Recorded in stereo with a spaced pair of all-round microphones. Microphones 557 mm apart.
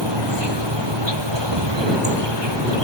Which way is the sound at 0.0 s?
50° right (ahead or behind).